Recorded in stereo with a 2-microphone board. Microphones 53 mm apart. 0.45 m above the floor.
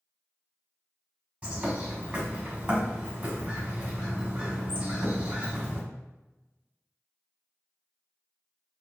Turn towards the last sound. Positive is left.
turn(degrees=-30)  # may be behind; listen again after turning